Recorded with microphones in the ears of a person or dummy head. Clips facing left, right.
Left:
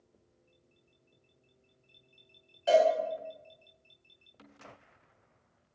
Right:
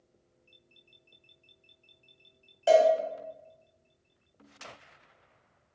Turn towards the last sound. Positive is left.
turn(degrees=-60)  # may be behind; listen again after turning